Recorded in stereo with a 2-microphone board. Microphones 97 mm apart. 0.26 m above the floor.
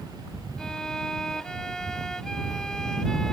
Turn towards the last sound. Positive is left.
turn(degrees=5)  # may be behind; listen again after turning